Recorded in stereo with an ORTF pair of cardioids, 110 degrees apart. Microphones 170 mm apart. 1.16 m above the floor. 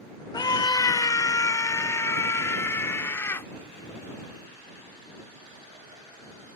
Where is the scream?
25° left; by 3.5 s 15° left.